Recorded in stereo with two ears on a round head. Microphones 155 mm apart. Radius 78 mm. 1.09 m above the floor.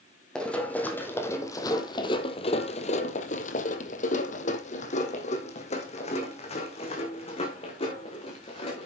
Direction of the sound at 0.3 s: 5° left (ahead or behind).